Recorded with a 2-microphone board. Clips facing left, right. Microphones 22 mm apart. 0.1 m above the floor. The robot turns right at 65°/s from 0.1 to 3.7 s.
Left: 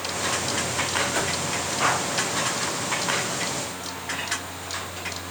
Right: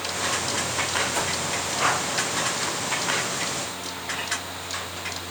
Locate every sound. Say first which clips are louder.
1.1 s a whoosh: left 1 dB; 25° left (ahead or behind), 1.8 m